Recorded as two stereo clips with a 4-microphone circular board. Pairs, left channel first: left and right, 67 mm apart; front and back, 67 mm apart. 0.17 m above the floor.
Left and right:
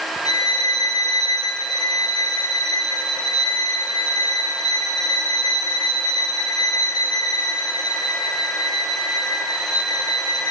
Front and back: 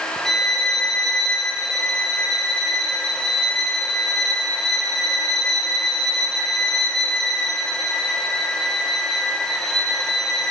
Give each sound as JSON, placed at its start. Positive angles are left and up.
{"t": 0.2, "sound": "a violin", "azimuth_deg": 85, "distance_m": 5.5}